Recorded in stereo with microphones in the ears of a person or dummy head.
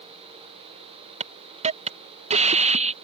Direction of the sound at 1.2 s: 30° right (ahead or behind).